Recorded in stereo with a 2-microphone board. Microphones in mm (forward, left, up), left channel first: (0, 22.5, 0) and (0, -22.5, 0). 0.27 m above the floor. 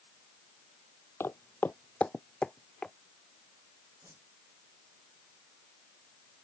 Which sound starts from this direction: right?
A whoosh, at 4.0 s.